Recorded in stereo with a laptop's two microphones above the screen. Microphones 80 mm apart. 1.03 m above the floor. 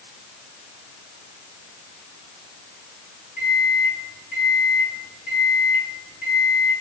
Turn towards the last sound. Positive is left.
turn(degrees=-20)  # may be behind; listen again after turning